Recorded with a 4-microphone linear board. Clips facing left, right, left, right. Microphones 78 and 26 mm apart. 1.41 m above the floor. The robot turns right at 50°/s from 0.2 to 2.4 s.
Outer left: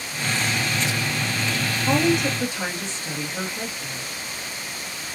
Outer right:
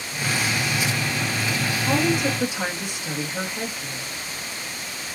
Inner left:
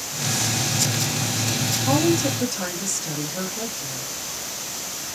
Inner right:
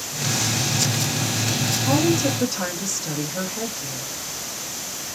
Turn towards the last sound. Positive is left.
turn(degrees=-15)  # may be behind; listen again after turning